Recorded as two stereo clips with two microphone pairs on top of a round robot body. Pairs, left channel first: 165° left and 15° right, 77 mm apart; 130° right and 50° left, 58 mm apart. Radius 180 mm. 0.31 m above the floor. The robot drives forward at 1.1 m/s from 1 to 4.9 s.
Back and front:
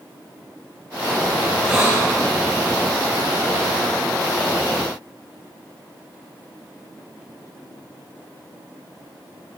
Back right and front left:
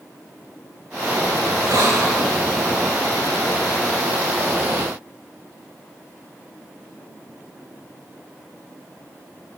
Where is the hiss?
50° left, 6.5 m.